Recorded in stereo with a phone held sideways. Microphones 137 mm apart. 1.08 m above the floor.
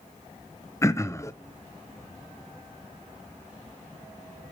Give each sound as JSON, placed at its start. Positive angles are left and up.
{"t": 0.8, "sound": "throat clearing", "side_deg": 20, "distance_m": 0.5}